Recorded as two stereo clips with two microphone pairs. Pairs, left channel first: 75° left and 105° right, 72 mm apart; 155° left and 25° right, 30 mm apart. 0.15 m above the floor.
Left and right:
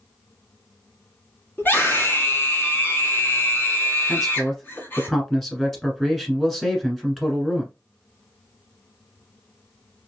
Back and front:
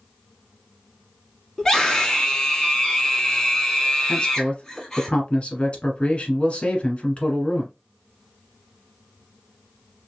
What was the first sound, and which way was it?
A scream, 90° left.